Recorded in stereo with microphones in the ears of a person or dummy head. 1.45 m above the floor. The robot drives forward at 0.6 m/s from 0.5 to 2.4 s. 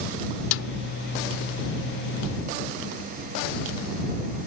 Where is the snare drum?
85° left.